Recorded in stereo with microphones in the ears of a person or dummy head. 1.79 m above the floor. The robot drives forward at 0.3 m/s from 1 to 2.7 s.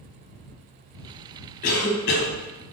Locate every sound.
1.6 s a cough: 50° left (ahead or behind), 0.9 m; by 2.3 s 60° left (ahead or behind), 0.8 m